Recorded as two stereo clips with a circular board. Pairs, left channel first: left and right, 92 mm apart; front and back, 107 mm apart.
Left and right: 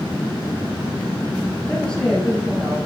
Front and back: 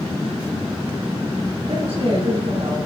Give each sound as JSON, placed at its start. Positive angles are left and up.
{"t": 1.7, "sound": "a woman speaking", "azimuth_deg": 165, "distance_m": 8.0}